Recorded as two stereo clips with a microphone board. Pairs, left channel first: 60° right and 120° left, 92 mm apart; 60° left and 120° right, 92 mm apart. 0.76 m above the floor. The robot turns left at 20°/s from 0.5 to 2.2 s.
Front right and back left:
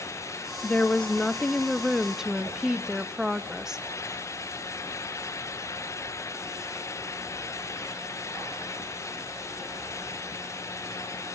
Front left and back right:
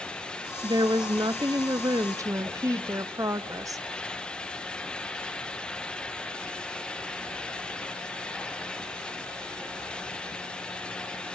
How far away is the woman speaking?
About 0.6 m.